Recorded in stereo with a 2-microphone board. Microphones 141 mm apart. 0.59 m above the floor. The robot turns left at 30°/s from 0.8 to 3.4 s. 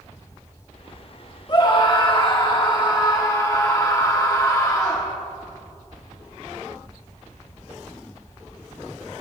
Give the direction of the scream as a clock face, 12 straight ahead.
8 o'clock.